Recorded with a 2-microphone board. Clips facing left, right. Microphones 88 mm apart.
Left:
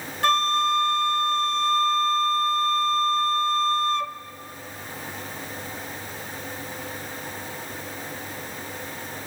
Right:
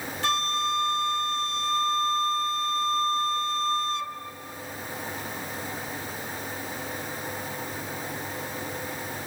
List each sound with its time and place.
0.2 s a flute: 55° left (ahead or behind), 0.5 m